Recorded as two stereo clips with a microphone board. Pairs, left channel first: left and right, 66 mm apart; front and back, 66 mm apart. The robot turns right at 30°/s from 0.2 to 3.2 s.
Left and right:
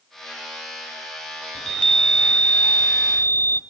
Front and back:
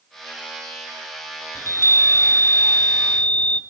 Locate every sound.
1.6 s a chime: 15° left, 1.2 m; by 3.6 s 65° left, 1.2 m